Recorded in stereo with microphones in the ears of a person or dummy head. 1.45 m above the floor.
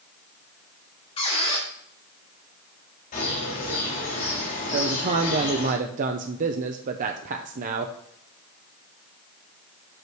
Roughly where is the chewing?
No chewing in this recording.